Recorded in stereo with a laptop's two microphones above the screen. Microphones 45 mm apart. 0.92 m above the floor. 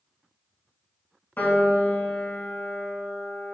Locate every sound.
1.4 s a piano: 45° left (ahead or behind), 0.7 m